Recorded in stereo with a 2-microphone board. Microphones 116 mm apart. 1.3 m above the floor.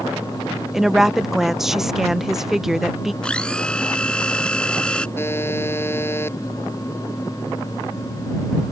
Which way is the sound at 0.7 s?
5° right (ahead or behind).